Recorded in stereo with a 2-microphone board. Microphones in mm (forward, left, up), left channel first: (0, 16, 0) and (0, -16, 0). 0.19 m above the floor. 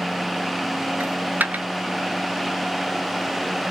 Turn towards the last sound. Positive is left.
turn(degrees=-75)  # may be behind; listen again after turning